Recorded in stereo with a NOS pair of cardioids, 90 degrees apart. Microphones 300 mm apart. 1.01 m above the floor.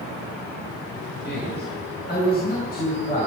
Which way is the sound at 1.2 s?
35° left.